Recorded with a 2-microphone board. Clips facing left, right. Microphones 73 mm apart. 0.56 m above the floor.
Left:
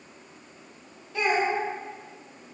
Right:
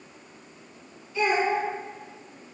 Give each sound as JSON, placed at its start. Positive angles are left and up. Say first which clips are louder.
{"t": 1.1, "sound": "a child speaking", "louder": "right 1 dB", "side_deg": 60, "distance_m": 1.4}